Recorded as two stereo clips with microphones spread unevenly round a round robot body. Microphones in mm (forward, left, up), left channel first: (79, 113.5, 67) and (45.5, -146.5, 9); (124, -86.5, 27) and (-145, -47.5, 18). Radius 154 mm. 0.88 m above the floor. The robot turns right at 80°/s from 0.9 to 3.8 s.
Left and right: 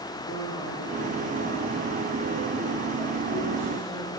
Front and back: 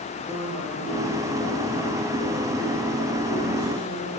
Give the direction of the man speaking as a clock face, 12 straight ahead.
9 o'clock.